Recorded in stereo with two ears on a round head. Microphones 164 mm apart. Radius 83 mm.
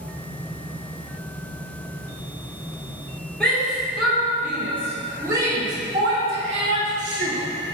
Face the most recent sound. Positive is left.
turn(degrees=-50)  # may be behind; listen again after turning